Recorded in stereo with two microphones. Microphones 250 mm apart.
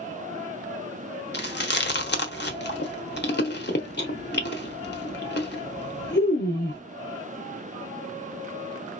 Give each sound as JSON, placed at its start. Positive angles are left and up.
{"t": 1.3, "sound": "chewing", "side_deg": 45, "distance_m": 0.8}